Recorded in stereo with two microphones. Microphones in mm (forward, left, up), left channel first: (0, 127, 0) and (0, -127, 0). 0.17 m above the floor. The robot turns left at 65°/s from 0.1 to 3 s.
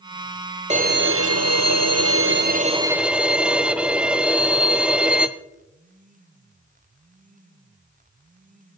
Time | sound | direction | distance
0.7 | a violin | 25° right | 0.8 m